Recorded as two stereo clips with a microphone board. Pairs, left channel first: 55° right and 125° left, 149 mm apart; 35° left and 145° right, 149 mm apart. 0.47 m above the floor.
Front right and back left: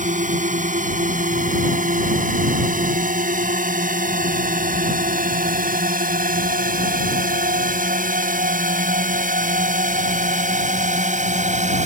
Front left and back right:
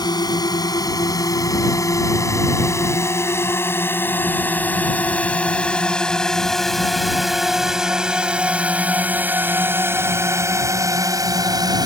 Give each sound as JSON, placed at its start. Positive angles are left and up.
{"t": 0.0, "sound": "a drone", "azimuth_deg": 95}